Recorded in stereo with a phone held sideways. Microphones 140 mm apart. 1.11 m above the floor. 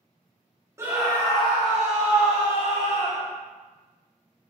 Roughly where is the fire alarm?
I don't hear a fire alarm.